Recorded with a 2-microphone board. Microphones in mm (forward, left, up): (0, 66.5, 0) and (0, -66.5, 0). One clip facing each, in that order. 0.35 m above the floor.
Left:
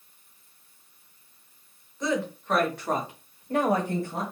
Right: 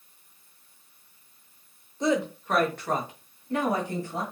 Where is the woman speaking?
25° right (ahead or behind), 1.1 m; by 4.2 s 55° left (ahead or behind), 1.7 m.